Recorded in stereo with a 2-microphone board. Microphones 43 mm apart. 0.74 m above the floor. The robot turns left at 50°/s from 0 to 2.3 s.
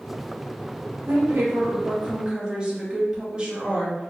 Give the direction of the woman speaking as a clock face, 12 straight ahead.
3 o'clock.